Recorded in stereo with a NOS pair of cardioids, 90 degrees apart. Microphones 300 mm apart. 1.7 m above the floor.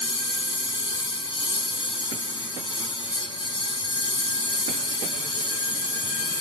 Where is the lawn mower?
15° left.